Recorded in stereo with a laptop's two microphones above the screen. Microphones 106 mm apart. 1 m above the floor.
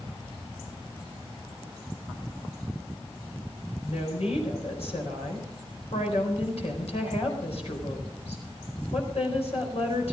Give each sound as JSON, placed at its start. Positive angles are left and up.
{"t": 3.8, "sound": "a woman speaking", "side_deg": 75, "distance_m": 4.5}